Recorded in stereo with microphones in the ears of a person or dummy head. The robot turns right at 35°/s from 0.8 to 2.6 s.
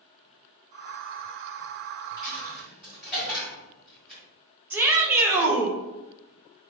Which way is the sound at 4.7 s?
5° right (ahead or behind).